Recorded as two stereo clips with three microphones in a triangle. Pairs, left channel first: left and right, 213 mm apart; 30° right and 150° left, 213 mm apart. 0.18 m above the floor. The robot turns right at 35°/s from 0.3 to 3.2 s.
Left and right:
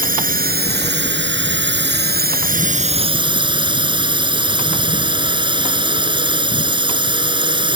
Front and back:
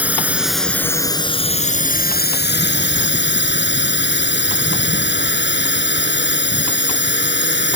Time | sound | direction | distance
0.0 | a drone | 130° right | ?